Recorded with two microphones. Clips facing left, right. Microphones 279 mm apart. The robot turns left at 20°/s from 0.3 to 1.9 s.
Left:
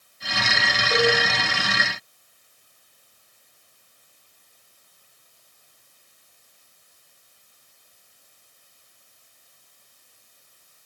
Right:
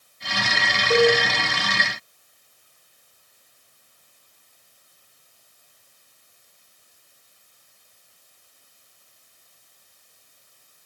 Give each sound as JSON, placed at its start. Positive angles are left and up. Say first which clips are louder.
{"t": 0.9, "sound": "a cowbell", "louder": "right 5 dB", "side_deg": -65, "distance_m": 3.5}